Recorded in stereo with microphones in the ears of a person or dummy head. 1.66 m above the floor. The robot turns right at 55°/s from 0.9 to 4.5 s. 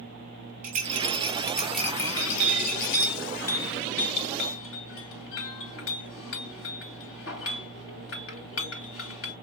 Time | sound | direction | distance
0.6 | a rattle | 40° right | 1.8 m
2.1 | a clink | 50° right (ahead or behind) | 2 m